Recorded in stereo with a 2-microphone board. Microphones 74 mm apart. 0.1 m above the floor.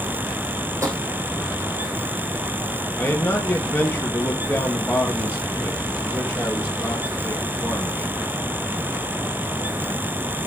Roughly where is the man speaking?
Left.